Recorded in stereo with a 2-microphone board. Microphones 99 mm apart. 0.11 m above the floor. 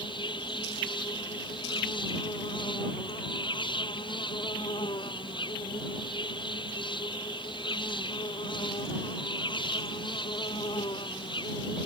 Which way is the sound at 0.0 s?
60° left (ahead or behind).